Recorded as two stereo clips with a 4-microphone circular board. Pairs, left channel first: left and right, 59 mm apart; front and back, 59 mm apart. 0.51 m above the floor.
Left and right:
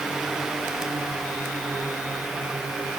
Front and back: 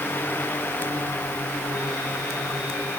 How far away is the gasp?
No gasp in this recording.